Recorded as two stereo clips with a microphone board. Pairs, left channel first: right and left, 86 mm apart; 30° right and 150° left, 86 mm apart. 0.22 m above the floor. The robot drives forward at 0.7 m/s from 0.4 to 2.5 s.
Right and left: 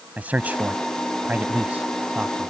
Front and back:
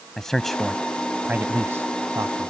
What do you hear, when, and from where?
0.2 s a man speaking: 50° left; by 2.5 s 160° left